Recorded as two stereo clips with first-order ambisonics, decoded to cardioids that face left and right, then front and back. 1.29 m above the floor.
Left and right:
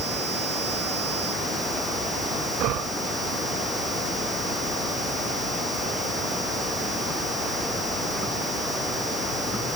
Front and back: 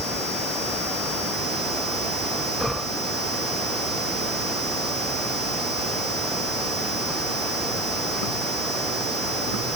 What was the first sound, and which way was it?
Only background noise.